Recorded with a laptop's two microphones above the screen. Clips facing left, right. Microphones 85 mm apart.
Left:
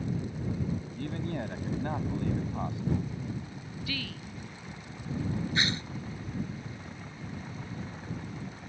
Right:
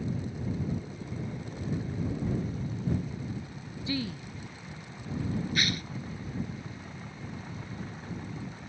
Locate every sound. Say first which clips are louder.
0.9 s a man speaking: left 4 dB; 85° left
3.9 s a woman speaking: right 7 dB; 25° right (ahead or behind)
5.5 s tearing paper: left 1 dB; 25° left (ahead or behind)